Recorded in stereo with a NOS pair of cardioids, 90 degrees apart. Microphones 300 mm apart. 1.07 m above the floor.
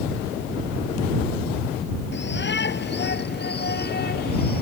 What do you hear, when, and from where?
2.1 s a shout: 35° left; by 4.6 s 30° left